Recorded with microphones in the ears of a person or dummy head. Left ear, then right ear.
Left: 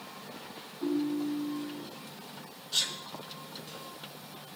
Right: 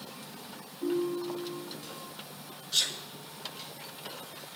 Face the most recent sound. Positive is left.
turn(degrees=0)  # may be behind; listen again after turning